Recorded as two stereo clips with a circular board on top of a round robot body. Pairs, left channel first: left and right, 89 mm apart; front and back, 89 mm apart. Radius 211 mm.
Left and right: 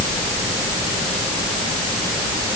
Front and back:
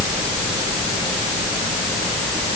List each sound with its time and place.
Only background noise.